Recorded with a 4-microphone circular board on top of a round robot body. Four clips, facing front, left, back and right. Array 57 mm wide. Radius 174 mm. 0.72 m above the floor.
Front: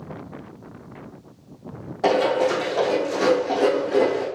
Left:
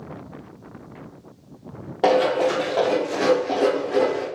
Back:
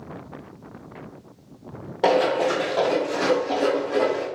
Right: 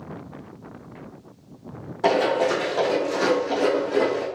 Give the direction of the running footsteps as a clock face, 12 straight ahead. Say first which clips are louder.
Left 2 dB, even; 8 o'clock.